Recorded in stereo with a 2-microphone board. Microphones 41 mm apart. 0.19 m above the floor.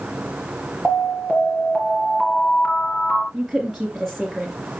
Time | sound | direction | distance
0.8 | an alarm | 25° left (ahead or behind) | 3.5 m
3.3 | a woman speaking | centre (ahead or behind) | 3.5 m